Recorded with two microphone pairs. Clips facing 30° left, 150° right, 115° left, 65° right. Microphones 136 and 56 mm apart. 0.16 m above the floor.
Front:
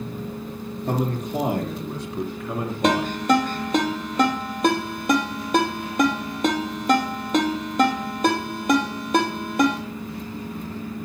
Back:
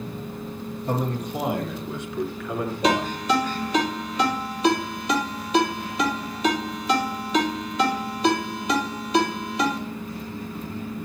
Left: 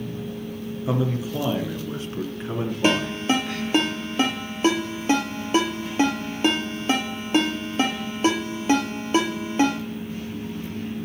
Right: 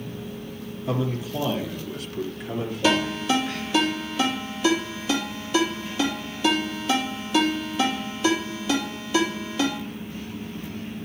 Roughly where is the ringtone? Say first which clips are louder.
Front 3 dB, even; left.